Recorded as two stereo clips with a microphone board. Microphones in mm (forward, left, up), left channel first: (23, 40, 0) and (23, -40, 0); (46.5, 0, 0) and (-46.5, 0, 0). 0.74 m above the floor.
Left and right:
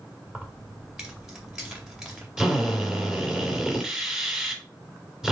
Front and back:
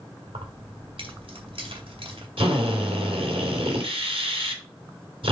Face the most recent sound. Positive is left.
turn(degrees=-175)